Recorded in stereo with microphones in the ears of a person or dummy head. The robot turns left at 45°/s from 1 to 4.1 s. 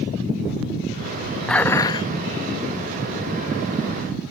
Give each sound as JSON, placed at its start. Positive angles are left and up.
{"t": 1.5, "sound": "dishes clattering", "side_deg": 0}